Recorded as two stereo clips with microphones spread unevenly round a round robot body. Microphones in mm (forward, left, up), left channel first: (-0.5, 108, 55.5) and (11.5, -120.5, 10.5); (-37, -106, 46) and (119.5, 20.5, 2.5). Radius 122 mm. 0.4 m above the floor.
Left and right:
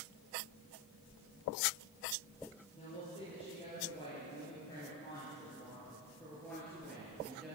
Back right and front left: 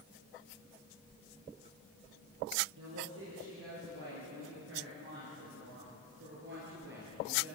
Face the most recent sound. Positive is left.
turn(degrees=0)